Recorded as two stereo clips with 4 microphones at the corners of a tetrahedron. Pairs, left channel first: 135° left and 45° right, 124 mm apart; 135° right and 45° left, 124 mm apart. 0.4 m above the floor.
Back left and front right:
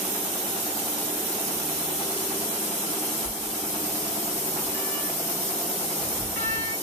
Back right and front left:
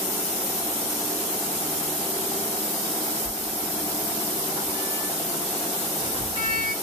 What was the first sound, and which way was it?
A sliding door, 65° left.